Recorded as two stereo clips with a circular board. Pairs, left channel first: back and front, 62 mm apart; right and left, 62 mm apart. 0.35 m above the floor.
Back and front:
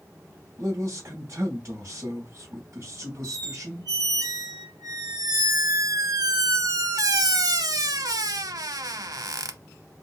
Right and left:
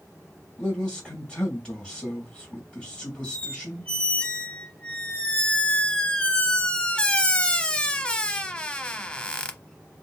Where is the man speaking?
10° right, 1.9 m.